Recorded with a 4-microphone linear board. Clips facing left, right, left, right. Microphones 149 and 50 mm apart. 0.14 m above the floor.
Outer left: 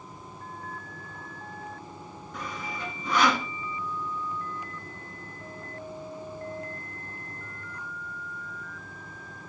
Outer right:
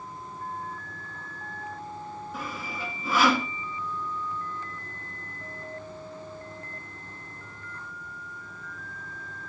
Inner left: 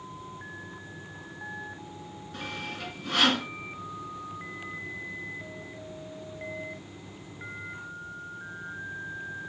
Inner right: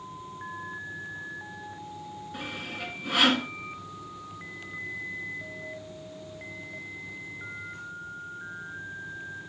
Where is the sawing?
5° right (ahead or behind), 1.9 m.